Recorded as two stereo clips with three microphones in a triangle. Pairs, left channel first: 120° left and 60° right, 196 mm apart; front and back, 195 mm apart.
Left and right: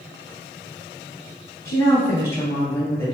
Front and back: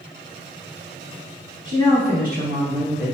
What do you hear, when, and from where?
1.6 s a woman speaking: 170° right, 1.9 m; by 3.1 s 160° right, 3 m